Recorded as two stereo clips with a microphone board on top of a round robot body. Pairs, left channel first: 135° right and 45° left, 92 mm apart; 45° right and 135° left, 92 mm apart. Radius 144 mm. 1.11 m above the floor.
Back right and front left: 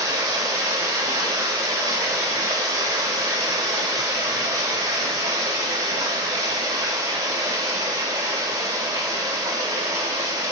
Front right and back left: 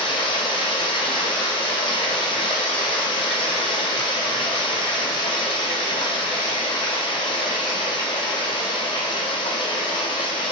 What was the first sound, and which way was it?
Running water, 10° right.